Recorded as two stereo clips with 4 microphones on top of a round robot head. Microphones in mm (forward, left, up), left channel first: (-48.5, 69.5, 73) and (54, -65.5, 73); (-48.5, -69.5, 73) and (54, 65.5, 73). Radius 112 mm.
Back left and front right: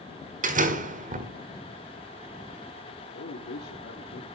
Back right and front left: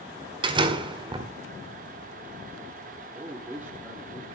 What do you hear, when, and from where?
0.4 s a door slam: 10° right, 1.7 m
3.1 s a man speaking: 130° left, 1.8 m